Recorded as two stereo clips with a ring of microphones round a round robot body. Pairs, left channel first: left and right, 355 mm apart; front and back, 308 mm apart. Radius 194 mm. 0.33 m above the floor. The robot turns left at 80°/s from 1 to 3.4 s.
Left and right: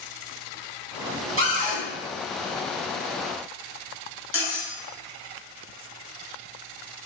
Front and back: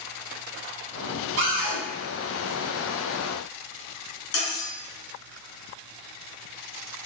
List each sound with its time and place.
1.4 s a cupboard door: 140° right, 1.0 m; by 1.8 s 175° right, 1.0 m
4.3 s cutlery clinking: 35° left, 1.3 m